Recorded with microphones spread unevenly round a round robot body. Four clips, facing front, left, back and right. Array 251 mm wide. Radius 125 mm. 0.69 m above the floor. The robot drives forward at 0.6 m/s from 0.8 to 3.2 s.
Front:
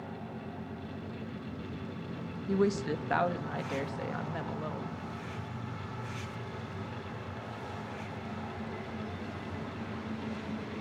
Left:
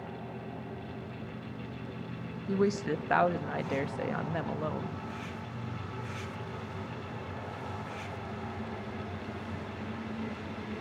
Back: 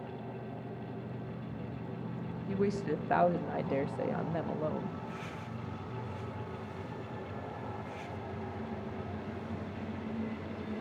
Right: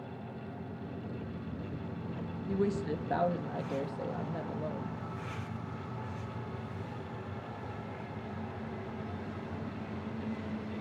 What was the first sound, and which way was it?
A woman speaking, 30° left.